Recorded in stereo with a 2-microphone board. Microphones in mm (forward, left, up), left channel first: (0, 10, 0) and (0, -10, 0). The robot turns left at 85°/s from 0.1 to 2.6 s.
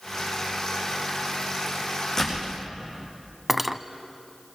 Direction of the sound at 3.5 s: 10° right (ahead or behind).